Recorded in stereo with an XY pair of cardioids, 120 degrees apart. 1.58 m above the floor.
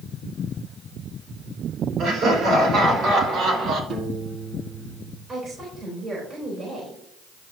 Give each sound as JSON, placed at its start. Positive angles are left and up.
{"t": 2.0, "sound": "laughter", "azimuth_deg": -65, "distance_m": 4.5}
{"t": 3.9, "sound": "a piano", "azimuth_deg": -65, "distance_m": 1.8}
{"t": 5.3, "sound": "a woman speaking", "azimuth_deg": -40, "distance_m": 4.0}